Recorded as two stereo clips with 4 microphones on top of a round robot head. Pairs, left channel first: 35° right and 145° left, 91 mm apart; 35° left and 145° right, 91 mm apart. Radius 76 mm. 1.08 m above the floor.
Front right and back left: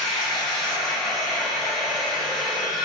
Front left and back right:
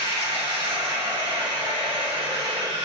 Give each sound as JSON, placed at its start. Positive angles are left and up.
{"t": 0.0, "sound": "running water", "azimuth_deg": -120, "distance_m": 2.5}